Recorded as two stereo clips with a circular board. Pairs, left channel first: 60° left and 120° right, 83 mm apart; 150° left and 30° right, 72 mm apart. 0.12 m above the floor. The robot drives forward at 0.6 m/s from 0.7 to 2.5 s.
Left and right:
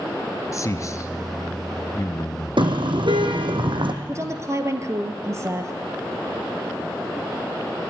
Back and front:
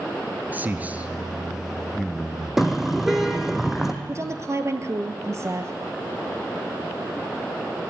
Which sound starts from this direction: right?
A woman speaking, at 4.1 s.